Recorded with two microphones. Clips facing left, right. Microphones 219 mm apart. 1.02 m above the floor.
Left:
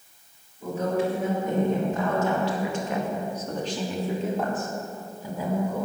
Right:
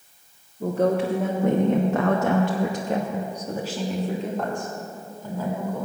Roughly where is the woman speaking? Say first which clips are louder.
Right 4 dB; right.